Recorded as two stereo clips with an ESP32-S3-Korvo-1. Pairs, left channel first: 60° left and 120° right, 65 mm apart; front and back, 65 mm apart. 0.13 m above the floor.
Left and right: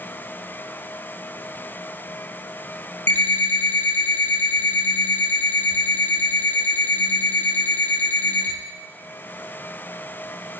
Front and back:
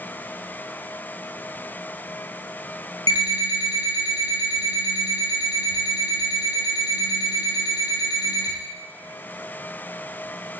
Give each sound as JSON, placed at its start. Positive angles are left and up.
{"t": 3.1, "sound": "an alarm clock", "azimuth_deg": 10, "distance_m": 1.4}